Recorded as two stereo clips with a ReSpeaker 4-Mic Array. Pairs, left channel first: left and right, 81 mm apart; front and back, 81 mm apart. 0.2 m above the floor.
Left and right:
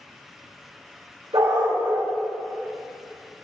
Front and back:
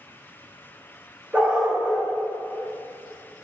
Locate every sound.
1.3 s a dog barking: 105° right, 7.5 m